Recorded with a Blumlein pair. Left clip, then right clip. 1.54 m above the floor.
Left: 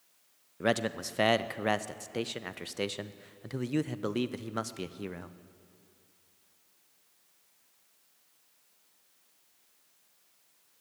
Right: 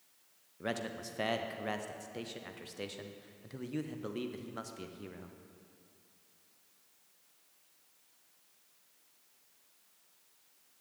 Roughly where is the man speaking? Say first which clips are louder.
Left 9 dB; ahead left.